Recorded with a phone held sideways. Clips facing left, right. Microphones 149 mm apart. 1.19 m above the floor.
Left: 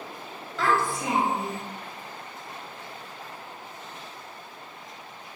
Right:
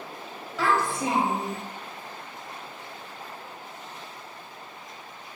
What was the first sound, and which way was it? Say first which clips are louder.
A child speaking: even; 5° right (ahead or behind).